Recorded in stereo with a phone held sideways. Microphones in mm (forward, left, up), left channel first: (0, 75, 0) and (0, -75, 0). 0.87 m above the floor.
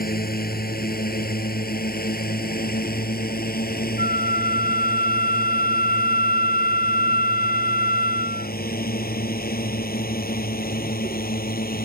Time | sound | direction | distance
0.0 | a drone | 85° left | ?
4.0 | a flute | 80° left | ?